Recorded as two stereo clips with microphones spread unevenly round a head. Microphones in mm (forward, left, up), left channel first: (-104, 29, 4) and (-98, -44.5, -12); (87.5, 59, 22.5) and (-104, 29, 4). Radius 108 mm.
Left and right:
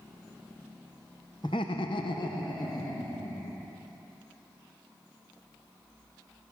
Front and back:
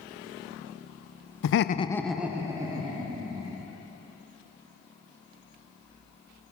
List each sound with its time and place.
1.4 s laughter: 20° left, 0.5 m; by 3.7 s 125° left, 3 m